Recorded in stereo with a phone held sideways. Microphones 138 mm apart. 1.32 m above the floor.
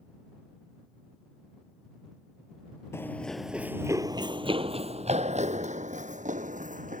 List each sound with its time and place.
2.9 s running footsteps: 20° left (ahead or behind); by 7.0 s 70° right (ahead or behind)